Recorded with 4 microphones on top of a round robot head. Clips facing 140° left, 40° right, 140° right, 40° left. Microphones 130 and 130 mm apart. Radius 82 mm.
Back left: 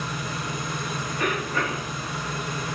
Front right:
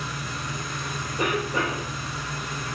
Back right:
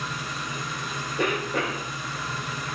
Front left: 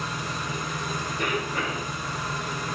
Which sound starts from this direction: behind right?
A cough, at 1.2 s.